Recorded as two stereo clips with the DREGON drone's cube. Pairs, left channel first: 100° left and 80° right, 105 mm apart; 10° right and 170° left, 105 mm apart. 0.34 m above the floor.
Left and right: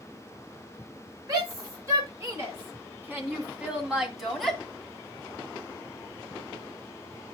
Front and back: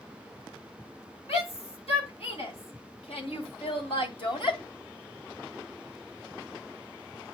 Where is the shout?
25° right, 3.5 m; by 4.6 s 15° left, 1.9 m.